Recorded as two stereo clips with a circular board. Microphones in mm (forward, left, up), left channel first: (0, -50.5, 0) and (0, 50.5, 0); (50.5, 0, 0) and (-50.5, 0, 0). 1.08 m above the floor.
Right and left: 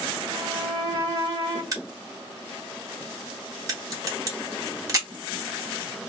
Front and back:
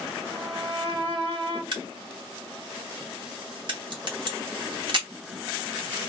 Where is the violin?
140° left, 1.4 m.